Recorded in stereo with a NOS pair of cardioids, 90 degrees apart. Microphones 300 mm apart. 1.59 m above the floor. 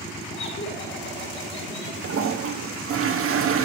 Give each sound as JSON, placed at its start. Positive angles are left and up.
{"t": 0.3, "sound": "laughter", "azimuth_deg": 40, "distance_m": 6.0}
{"t": 2.0, "sound": "a toilet flushing", "azimuth_deg": -45, "distance_m": 1.2}